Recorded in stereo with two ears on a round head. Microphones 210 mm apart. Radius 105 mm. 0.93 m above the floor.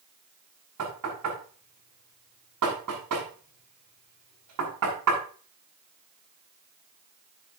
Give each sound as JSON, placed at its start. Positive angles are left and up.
{"t": 0.8, "sound": "knocking", "side_deg": -85, "distance_m": 7.0}